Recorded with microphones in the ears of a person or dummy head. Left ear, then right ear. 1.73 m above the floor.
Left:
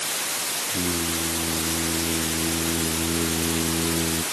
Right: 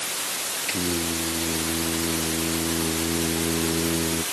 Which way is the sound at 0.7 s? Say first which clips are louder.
Right 2 dB; 60° right (ahead or behind).